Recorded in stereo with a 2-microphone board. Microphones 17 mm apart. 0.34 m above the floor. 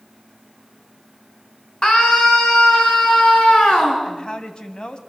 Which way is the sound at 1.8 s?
55° left (ahead or behind).